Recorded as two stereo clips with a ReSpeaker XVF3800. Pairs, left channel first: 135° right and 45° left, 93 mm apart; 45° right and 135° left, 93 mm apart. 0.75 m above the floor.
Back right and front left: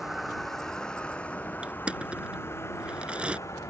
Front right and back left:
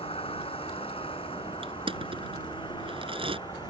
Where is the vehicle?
45° right; by 3.7 s 85° right.